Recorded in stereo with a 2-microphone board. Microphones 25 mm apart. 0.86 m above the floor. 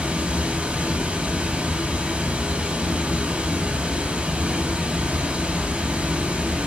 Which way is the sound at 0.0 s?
75° right (ahead or behind).